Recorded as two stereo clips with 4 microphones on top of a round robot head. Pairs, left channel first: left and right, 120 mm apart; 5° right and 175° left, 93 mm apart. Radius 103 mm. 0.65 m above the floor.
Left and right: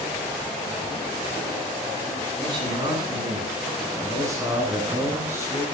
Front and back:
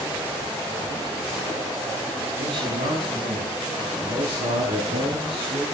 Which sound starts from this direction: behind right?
A man speaking, at 2.4 s.